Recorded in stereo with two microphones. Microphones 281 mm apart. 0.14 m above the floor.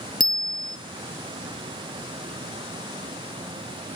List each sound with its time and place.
0.2 s a bicycle bell: 15° left (ahead or behind), 2 m